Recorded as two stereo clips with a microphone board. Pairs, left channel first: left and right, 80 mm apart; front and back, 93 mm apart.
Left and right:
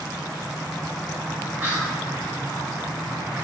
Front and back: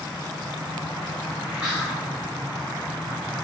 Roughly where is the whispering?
Behind right.